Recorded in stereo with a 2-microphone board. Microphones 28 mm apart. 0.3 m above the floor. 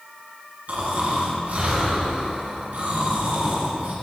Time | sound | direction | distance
0.7 | snoring | 65° right (ahead or behind) | 1.9 m